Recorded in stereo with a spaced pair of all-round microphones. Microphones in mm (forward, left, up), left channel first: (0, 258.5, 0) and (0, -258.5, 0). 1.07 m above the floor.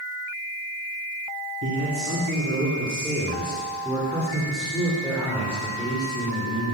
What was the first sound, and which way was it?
A man speaking, 30° right (ahead or behind).